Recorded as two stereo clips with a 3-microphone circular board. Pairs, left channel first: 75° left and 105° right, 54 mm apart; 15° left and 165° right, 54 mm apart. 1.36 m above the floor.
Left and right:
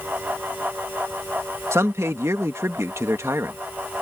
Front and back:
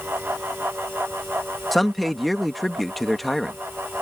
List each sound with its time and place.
1.7 s a man speaking: 70° right